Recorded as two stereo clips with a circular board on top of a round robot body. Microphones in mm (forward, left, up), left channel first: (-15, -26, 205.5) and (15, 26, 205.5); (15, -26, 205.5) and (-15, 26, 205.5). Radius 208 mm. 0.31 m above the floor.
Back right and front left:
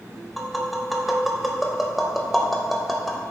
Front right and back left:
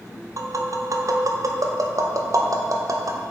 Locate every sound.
0.4 s tapping: 150° left, 0.6 m